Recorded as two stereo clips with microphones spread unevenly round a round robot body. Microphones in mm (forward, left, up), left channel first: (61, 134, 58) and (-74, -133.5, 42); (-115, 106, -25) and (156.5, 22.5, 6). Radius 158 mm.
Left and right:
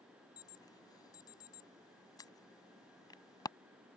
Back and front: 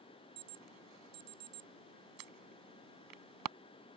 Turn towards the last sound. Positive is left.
turn(degrees=-15)